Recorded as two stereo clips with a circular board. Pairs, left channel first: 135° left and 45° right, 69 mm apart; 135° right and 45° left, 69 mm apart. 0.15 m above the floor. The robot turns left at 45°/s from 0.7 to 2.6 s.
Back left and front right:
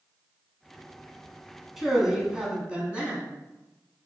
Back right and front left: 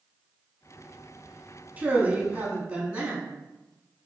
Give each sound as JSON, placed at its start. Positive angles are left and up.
{"t": 1.8, "sound": "a man speaking", "azimuth_deg": 40, "distance_m": 1.0}